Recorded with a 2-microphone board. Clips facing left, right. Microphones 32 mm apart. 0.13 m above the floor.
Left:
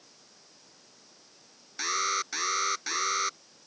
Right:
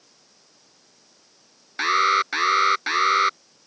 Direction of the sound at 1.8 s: 40° right (ahead or behind).